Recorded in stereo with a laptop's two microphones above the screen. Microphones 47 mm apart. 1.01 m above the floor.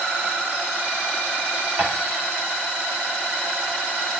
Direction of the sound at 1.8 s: 45° right (ahead or behind).